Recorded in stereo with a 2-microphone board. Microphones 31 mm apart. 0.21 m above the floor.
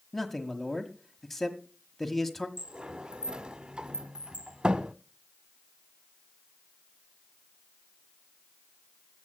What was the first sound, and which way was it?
A man speaking, 10° left (ahead or behind).